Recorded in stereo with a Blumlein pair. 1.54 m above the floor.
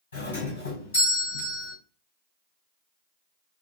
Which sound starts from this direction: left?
A doorbell, at 0.1 s.